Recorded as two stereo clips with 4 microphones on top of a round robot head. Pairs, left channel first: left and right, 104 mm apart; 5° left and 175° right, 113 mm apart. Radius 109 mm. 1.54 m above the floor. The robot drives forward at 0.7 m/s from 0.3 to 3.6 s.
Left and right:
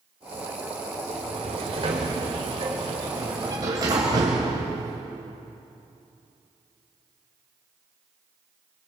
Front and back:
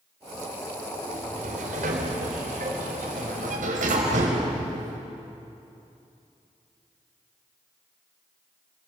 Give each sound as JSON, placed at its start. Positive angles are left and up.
{"t": 1.1, "sound": "a sliding door", "azimuth_deg": -135, "distance_m": 2.5}